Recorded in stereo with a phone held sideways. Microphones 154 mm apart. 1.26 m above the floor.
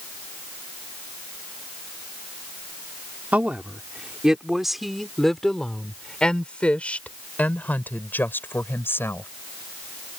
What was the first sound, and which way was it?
A woman speaking, 10° right (ahead or behind).